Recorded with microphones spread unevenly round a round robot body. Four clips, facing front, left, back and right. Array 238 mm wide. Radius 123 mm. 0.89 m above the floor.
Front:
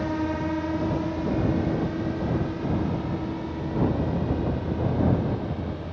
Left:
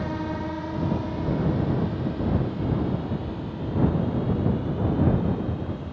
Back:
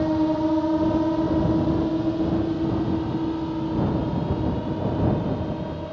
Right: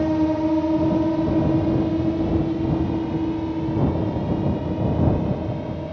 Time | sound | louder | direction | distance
0.0 | a drone | right 10 dB, back 6 dB | 120° right | ?